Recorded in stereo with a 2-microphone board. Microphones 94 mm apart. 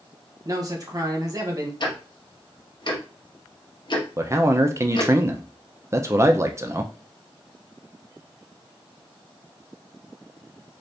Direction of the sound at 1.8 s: 50° left (ahead or behind).